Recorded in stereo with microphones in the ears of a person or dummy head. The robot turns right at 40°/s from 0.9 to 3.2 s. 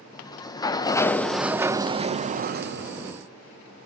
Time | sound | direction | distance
0.1 | a sliding door | 160° left | 0.5 m